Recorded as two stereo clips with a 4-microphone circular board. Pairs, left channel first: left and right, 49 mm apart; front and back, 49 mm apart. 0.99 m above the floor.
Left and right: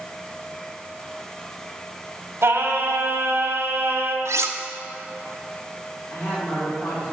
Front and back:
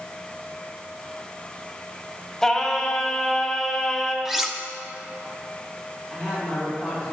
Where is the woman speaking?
90° left, 3.5 m.